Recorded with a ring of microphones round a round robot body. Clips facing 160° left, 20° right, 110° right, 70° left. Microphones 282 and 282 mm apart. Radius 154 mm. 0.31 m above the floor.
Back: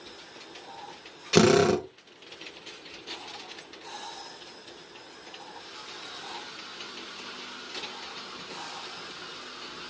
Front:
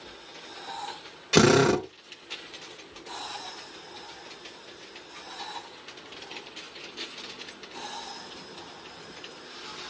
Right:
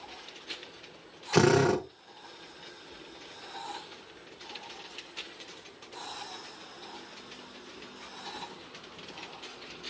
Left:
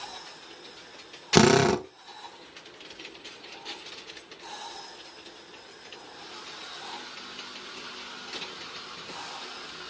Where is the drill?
70° left, 0.9 m.